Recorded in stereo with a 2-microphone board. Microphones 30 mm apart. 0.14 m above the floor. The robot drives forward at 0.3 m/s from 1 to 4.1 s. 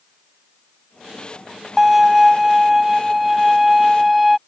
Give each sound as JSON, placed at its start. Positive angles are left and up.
{"t": 1.8, "sound": "a violin", "side_deg": -10}